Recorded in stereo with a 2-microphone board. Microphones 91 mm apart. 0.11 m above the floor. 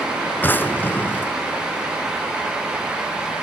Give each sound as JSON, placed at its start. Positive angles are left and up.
{"t": 0.4, "sound": "a drawer", "side_deg": 25, "distance_m": 0.5}